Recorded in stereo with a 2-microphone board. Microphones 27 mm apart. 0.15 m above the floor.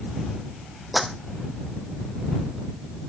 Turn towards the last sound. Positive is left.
turn(degrees=-5)  # may be behind; listen again after turning